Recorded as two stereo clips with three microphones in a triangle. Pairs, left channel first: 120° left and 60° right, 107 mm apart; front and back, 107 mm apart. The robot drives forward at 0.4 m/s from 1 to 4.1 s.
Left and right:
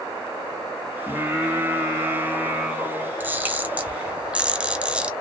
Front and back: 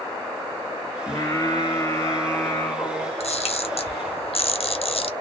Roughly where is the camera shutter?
Ahead.